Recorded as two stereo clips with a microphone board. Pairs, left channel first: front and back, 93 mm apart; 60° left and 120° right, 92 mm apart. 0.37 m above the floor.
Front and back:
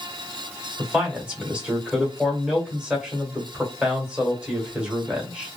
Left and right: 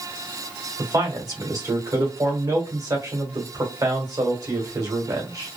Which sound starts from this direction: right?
A man speaking, at 0.8 s.